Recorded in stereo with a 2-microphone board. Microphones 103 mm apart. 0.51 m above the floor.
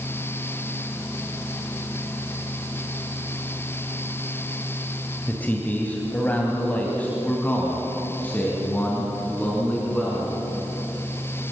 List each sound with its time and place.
5.3 s a man speaking: 15° left (ahead or behind), 2.0 m